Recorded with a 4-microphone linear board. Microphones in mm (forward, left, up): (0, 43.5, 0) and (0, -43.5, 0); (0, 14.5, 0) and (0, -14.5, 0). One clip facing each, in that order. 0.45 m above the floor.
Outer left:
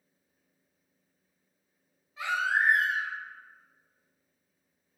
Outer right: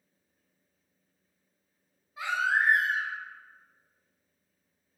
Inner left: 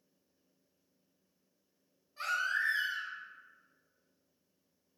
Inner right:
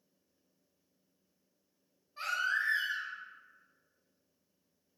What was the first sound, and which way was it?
A baby crying, 15° right (ahead or behind).